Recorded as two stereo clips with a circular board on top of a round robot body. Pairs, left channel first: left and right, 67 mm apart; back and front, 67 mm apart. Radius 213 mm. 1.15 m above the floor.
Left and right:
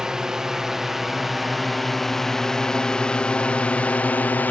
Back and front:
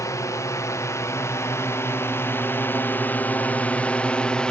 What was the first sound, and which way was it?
A drone, 170° right.